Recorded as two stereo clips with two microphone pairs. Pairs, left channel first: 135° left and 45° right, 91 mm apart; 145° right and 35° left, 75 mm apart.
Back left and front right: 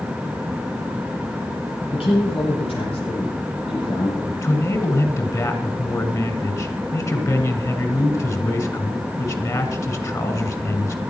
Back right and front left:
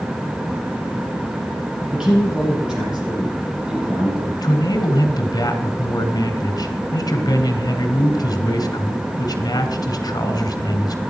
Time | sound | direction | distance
1.9 | a man speaking | 115° left | 10 m
4.4 | a man speaking | 170° right | 2.5 m